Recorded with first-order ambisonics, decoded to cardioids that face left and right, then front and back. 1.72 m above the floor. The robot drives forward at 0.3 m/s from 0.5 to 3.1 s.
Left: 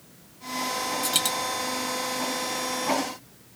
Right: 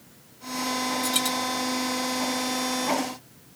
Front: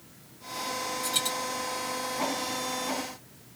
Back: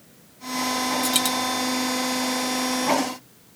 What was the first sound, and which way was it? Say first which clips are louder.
A dropped coin: left 2 dB, back 4 dB; 150° left.